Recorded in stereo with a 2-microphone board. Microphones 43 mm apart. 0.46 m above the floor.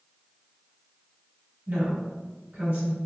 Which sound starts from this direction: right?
A woman speaking, at 1.7 s.